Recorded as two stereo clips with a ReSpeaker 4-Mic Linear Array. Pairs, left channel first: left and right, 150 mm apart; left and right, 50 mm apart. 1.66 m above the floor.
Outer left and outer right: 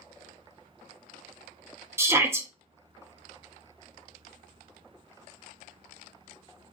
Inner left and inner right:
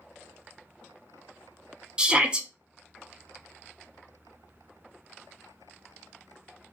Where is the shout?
15° right (ahead or behind), 0.5 m.